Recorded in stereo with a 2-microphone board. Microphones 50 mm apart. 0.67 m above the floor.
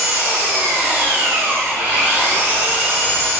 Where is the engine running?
40° right (ahead or behind), 1.2 m.